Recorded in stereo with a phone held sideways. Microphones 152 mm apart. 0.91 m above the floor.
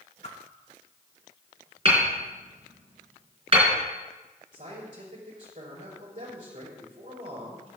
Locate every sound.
0.2 s a whoosh: 40° left (ahead or behind), 1.1 m
1.9 s hammering: 35° right (ahead or behind), 4 m
4.5 s a man speaking: 55° right (ahead or behind), 4 m